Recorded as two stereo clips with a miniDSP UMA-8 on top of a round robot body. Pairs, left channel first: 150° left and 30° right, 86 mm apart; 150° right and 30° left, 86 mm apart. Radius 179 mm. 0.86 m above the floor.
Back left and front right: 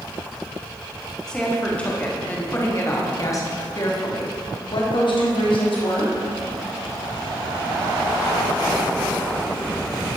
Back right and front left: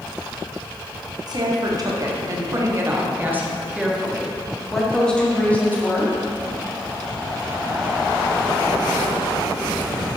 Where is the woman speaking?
70° left, 2 m; by 6.1 s 145° left, 2 m.